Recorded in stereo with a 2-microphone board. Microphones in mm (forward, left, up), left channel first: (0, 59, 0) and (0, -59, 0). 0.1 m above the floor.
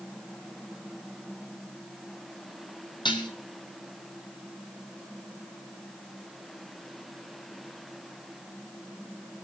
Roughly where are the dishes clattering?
Left.